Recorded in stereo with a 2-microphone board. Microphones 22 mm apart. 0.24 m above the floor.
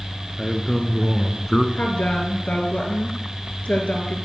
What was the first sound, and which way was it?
A man speaking, 20° left (ahead or behind).